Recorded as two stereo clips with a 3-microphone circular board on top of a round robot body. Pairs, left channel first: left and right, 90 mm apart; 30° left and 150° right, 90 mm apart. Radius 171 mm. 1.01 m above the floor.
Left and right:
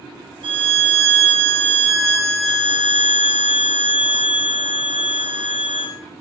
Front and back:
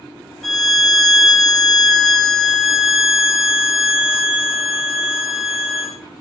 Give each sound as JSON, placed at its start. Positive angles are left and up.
{"t": 0.4, "sound": "a violin", "azimuth_deg": -55, "distance_m": 0.9}